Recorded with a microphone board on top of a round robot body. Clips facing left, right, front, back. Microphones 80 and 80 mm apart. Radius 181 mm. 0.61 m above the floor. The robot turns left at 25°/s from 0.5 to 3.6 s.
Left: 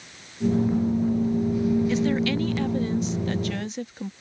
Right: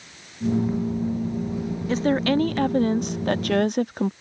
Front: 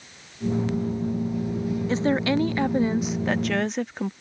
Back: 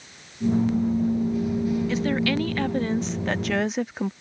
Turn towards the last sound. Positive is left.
turn(degrees=-95)